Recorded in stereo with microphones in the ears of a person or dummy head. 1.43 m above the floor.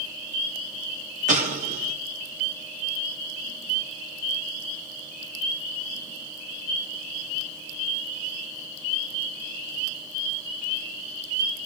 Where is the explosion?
40° right (ahead or behind), 3.5 m.